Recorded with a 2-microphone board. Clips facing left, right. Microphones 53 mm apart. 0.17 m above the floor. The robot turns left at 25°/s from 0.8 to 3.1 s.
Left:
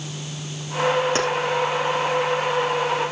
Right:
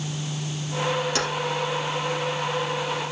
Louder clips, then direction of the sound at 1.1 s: Left 4 dB; 35° left (ahead or behind).